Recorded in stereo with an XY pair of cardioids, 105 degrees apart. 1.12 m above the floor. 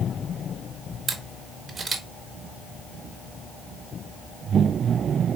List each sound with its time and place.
1.1 s a camera shutter: 50° right, 2.5 m